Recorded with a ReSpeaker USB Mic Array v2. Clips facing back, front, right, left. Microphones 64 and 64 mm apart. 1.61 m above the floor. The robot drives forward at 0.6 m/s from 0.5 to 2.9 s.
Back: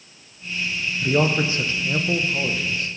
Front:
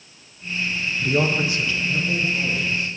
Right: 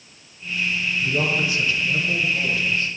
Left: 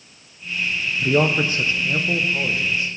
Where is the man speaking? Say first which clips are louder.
Back 1 dB, left 6 dB; 95° left, 0.6 m; by 2.9 s 160° left, 1.3 m.